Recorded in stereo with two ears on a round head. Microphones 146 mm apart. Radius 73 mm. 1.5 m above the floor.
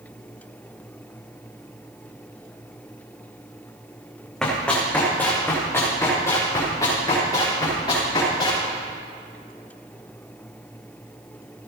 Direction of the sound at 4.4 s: 5° left (ahead or behind).